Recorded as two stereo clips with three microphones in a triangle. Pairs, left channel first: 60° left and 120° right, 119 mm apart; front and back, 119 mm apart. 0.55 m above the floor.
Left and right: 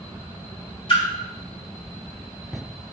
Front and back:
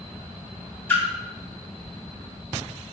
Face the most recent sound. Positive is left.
turn(degrees=65)